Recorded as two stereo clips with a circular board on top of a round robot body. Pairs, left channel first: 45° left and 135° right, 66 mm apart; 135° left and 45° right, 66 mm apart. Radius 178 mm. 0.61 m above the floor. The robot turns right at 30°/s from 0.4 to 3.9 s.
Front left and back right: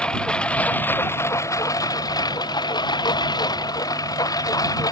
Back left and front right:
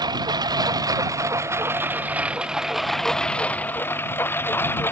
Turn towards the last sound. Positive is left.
turn(degrees=75)